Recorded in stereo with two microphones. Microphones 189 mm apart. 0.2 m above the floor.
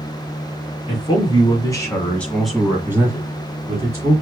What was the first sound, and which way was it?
A man speaking, 35° left (ahead or behind).